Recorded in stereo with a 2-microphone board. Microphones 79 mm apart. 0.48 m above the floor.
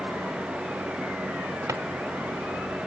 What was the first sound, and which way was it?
A drawer, 40° right (ahead or behind).